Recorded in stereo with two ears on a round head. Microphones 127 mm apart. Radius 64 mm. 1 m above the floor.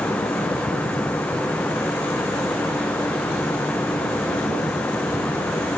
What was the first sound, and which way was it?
Only background noise.